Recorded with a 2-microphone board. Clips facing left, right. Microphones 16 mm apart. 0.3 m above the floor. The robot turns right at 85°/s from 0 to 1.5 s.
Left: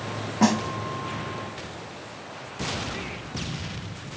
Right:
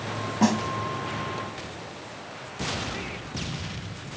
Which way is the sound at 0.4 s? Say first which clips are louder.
Left 2 dB; 10° left (ahead or behind).